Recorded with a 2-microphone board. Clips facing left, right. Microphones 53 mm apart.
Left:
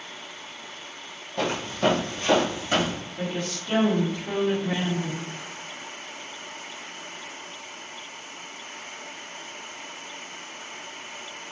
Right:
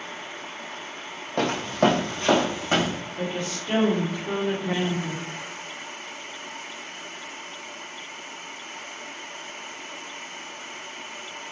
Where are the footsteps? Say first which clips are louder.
Right 3 dB; 60° right (ahead or behind), 0.9 m; by 3.0 s 30° right (ahead or behind), 1.5 m.